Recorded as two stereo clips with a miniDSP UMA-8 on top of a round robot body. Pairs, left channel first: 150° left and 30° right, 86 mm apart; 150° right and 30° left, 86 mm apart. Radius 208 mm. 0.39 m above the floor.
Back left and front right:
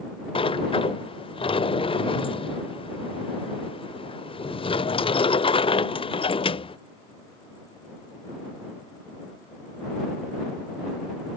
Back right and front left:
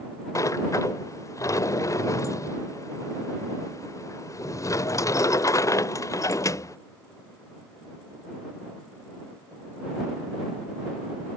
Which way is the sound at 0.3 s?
155° left.